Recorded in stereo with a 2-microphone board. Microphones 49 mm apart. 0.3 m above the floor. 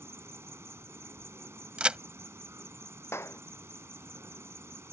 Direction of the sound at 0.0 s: 70° right (ahead or behind).